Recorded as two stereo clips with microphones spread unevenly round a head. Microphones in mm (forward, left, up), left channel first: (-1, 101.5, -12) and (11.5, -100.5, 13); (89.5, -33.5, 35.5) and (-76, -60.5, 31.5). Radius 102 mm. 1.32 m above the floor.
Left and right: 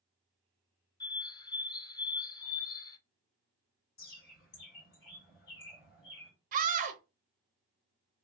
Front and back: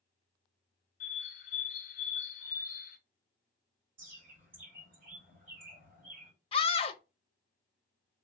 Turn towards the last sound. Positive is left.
turn(degrees=-40)